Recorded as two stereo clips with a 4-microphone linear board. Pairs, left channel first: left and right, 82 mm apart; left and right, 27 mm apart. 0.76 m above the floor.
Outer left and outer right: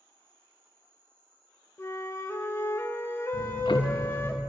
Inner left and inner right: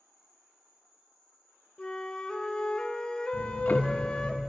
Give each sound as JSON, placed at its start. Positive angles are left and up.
{"t": 0.0, "sound": "an insect", "side_deg": 15, "distance_m": 5.5}
{"t": 1.8, "sound": "a flute", "side_deg": 35, "distance_m": 0.8}
{"t": 3.3, "sound": "ticking", "side_deg": 75, "distance_m": 0.7}